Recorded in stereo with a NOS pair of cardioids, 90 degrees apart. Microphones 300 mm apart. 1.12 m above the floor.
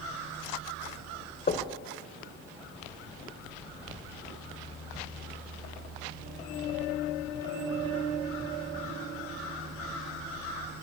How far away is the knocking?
About 2.5 m.